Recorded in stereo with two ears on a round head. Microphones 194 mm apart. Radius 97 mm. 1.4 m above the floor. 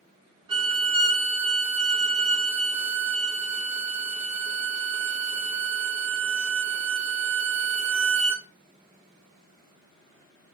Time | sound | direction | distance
0.5 | a violin | 25° right (ahead or behind) | 1.2 m